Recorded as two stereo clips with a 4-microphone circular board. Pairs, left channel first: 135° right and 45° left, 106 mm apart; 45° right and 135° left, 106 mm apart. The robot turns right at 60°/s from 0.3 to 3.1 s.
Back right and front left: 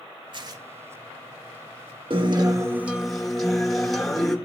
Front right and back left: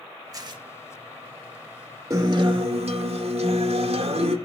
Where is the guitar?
75° left, 2.0 m; by 4.4 s 135° left, 2.0 m.